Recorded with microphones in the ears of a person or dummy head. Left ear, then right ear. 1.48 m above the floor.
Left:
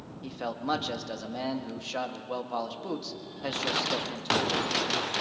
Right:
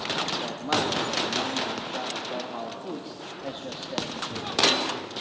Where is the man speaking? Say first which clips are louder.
Right 3 dB; 80° left, 2.0 m.